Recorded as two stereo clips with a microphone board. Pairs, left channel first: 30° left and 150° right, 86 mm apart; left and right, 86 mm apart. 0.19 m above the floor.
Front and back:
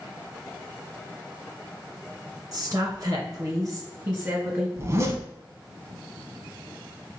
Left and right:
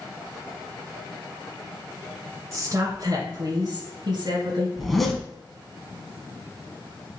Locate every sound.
2.5 s a woman speaking: 135° right, 1.6 m; by 4.7 s 90° right, 1.9 m
4.8 s a zipper: straight behind, 0.8 m